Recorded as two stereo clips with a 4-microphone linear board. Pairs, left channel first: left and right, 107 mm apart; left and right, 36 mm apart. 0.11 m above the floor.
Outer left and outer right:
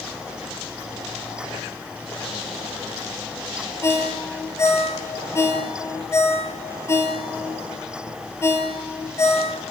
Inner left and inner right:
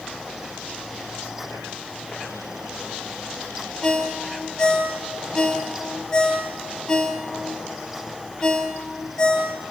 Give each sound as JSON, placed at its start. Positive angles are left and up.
{"t": 3.8, "sound": "a ringtone", "side_deg": 25, "distance_m": 1.7}